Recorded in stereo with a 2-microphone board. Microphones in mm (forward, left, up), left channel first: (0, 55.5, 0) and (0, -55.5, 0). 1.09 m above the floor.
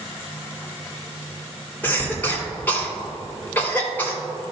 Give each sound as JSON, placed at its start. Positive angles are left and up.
{"t": 1.8, "sound": "a cough", "side_deg": 15, "distance_m": 3.0}